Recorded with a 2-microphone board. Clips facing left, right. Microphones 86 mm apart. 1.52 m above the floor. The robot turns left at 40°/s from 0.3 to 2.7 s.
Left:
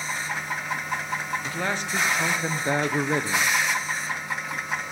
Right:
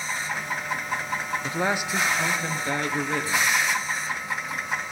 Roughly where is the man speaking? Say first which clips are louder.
Right 3 dB; behind right.